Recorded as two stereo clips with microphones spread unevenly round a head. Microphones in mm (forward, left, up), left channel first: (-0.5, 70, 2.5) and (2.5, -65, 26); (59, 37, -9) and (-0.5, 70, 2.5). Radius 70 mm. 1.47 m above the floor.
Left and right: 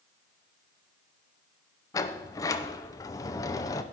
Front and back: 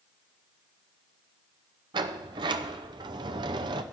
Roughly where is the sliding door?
Behind left.